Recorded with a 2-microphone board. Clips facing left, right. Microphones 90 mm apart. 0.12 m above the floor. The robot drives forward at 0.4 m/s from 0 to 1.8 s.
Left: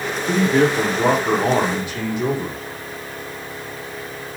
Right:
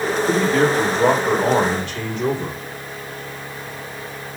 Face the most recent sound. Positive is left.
turn(degrees=15)  # may be behind; listen again after turning